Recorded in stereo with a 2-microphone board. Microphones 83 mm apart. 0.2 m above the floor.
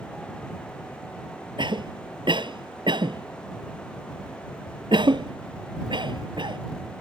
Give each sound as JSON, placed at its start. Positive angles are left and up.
{"t": 1.6, "sound": "a cough", "side_deg": -65}